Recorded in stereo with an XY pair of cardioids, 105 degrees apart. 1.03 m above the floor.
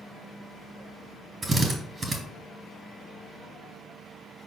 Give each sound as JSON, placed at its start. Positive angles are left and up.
{"t": 1.4, "sound": "a drill", "azimuth_deg": -30, "distance_m": 3.0}